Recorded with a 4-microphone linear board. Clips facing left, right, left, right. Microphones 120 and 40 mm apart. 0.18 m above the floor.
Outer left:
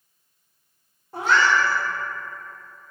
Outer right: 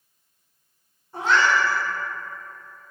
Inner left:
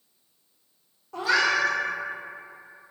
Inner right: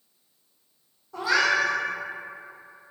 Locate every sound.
1.1 s a cat meowing: 75° left (ahead or behind), 1.2 m